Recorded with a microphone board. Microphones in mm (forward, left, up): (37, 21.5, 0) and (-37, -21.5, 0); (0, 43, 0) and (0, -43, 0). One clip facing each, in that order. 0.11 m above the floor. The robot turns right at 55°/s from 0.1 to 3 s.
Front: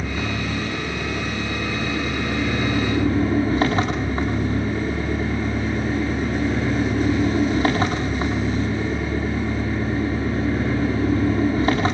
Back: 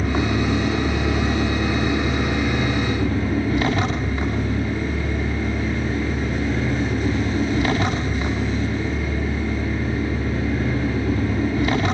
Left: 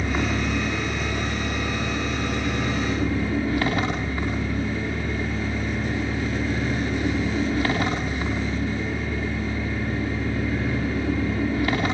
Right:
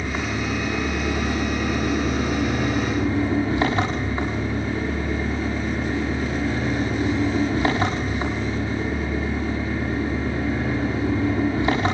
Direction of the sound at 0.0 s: 175° left.